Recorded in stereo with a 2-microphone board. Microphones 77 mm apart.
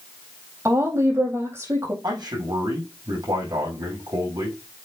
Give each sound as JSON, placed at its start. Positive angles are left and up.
{"t": 0.7, "sound": "a woman speaking", "side_deg": -35, "distance_m": 4.0}
{"t": 2.0, "sound": "a man speaking", "side_deg": -65, "distance_m": 5.0}